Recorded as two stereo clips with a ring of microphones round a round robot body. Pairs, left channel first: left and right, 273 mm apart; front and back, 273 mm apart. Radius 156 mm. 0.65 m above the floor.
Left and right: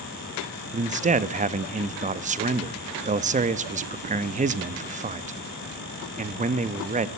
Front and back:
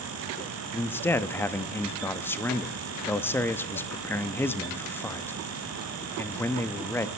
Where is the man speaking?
75° right, 0.7 m.